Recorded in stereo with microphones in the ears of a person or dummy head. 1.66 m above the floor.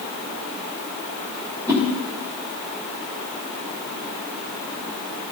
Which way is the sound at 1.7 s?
20° right (ahead or behind).